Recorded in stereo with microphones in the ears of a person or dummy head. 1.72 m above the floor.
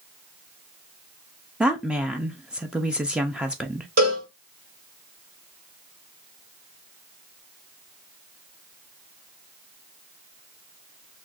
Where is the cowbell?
40° right (ahead or behind), 1.8 m.